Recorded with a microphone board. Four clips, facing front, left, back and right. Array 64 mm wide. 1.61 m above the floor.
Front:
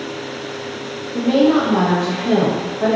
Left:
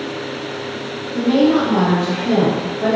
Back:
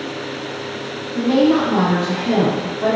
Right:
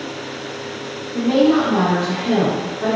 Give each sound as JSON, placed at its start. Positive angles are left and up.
{"t": 1.1, "sound": "a woman speaking", "azimuth_deg": 5, "distance_m": 1.2}